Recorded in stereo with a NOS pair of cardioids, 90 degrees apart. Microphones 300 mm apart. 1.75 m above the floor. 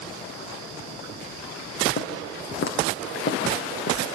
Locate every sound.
2.0 s footsteps: 40° left, 5.5 m